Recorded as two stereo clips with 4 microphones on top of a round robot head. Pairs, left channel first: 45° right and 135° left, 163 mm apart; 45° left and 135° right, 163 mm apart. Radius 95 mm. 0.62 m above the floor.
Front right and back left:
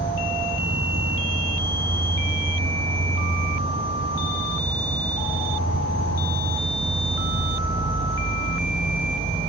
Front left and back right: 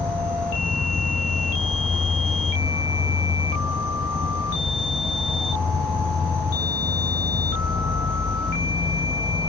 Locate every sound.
0.0 s an insect: 125° left, 0.8 m